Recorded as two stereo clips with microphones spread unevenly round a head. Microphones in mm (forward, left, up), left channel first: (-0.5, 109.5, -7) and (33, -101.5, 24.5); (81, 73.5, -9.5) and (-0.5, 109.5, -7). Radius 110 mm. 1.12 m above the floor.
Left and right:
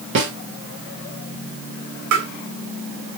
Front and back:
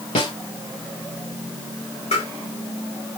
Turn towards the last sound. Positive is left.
turn(degrees=-65)